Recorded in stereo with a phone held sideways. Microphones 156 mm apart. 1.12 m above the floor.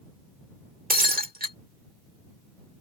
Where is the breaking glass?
75° right (ahead or behind).